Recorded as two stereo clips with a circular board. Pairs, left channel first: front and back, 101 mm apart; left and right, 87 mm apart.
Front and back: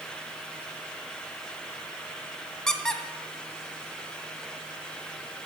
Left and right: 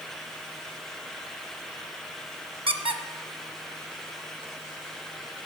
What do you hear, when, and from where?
2.7 s a squeak: 85° right, 0.5 m